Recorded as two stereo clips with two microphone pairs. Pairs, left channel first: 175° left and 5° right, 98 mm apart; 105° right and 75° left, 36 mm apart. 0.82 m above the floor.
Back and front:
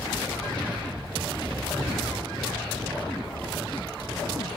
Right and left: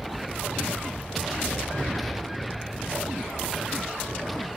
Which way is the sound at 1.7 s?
45° right.